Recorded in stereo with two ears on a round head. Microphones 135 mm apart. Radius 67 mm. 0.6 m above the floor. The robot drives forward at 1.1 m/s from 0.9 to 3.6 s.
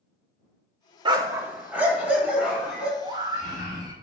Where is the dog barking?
30° right (ahead or behind), 0.5 m; by 2.9 s 5° right (ahead or behind), 2.5 m.